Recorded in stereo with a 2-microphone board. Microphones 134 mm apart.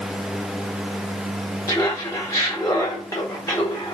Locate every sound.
1.7 s laughter: 25° left (ahead or behind), 0.8 m